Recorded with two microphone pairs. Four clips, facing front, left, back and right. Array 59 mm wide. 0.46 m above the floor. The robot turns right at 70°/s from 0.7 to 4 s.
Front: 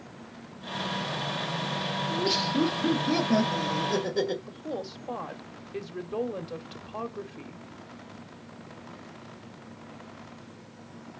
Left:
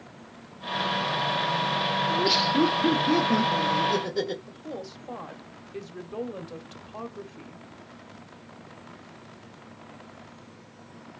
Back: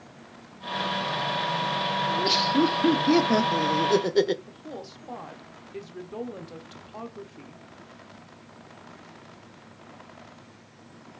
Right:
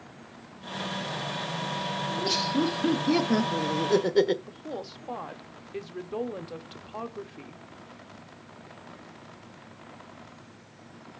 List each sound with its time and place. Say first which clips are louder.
2.1 s laughter: left 3 dB, back 3 dB; 95° left, 1.0 m; by 4.4 s 135° right, 1.0 m
4.5 s a woman speaking: even, front 4 dB; 30° right, 0.9 m